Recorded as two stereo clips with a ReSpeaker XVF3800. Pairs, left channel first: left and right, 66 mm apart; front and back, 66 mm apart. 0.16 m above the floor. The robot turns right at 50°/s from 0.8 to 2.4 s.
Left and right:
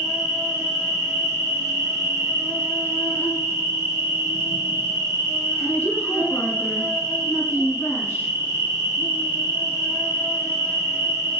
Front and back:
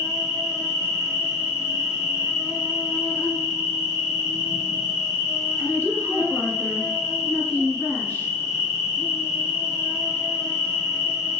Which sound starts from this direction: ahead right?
An insect, at 0.0 s.